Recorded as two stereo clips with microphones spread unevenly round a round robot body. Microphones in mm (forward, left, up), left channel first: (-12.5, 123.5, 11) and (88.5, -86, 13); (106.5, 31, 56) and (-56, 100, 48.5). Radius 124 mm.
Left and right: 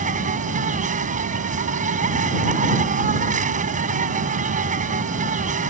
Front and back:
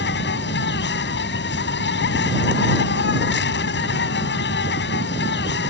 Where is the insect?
5° right.